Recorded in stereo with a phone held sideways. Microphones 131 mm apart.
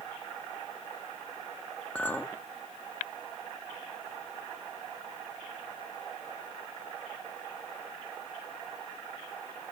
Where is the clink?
10° left (ahead or behind), 1.0 m.